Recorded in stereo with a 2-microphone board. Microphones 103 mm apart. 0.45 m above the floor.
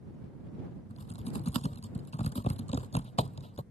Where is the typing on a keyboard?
80° left.